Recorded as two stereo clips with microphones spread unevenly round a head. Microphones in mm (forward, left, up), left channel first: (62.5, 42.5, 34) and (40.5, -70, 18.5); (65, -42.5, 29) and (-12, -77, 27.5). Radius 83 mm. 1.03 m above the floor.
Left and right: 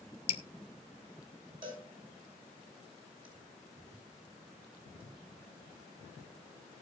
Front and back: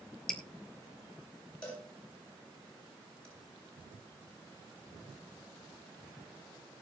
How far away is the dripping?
About 1.0 m.